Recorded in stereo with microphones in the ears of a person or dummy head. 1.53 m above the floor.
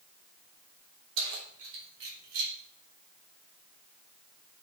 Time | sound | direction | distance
1.2 | keys jangling | 75° right (ahead or behind) | 3.5 m